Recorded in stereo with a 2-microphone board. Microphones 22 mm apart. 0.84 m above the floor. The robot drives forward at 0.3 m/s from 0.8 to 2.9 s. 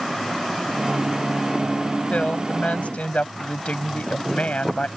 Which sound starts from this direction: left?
A woman speaking, at 2.1 s.